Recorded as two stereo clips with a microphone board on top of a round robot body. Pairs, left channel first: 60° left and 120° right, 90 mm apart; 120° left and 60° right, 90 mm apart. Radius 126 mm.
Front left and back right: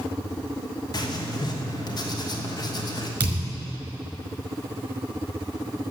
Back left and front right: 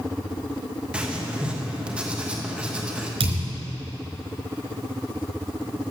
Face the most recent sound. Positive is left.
turn(degrees=-50)